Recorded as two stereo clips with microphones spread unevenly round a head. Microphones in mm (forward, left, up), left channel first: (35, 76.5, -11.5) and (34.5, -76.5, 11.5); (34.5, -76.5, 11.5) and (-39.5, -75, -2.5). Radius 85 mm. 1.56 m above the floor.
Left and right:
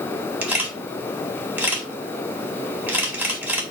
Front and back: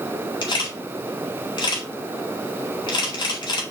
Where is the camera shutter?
10° right, 4 m.